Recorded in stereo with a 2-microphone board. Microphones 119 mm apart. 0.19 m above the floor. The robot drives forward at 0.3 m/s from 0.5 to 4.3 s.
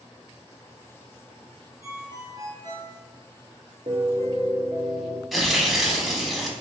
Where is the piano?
55° right (ahead or behind), 0.8 m; by 5.2 s 45° right (ahead or behind), 0.9 m.